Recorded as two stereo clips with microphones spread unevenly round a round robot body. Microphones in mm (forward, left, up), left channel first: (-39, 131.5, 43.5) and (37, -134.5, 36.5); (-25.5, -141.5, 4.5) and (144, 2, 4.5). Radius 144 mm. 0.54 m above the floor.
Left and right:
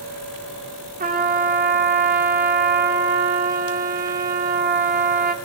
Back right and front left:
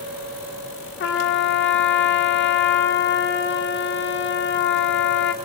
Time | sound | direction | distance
1.0 | a trumpet | 125° right | 1.3 m